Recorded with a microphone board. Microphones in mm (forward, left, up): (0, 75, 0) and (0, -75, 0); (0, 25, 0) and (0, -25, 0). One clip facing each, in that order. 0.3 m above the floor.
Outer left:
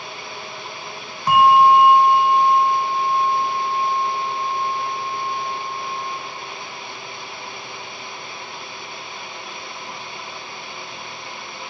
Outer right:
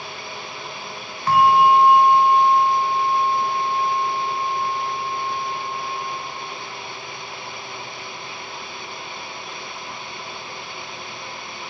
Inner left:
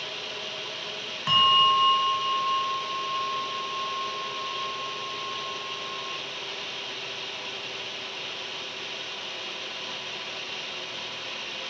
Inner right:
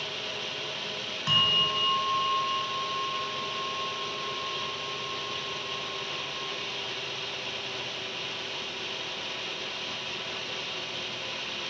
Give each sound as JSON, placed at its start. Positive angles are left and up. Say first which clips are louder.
{"t": 1.3, "sound": "a bell", "louder": "outer left 2 dB, inner left 6 dB", "side_deg": 15, "distance_m": 1.3}